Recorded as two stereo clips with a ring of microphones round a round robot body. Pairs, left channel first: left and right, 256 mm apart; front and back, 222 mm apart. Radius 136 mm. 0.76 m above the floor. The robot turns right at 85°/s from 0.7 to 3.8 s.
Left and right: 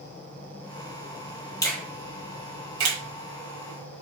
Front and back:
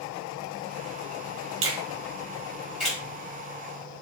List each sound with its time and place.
1.6 s a finger snap: 165° left, 1.3 m; by 3.0 s 80° right, 1.3 m